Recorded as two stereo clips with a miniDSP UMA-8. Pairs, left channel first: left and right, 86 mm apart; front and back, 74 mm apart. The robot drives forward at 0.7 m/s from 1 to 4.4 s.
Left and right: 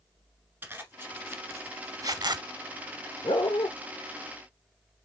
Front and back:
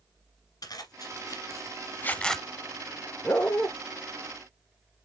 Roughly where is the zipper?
Ahead right.